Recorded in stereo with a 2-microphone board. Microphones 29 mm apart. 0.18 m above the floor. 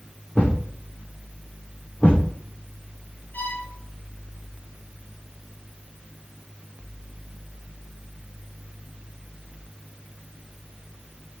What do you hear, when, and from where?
0.3 s a thud: 45° left (ahead or behind), 8 m
3.3 s a violin: 75° left (ahead or behind), 3.5 m